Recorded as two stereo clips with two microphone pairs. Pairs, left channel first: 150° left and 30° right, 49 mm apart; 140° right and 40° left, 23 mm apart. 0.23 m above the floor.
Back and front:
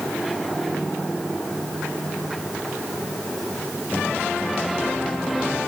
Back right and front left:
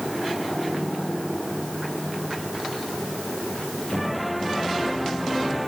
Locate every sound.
Only background noise.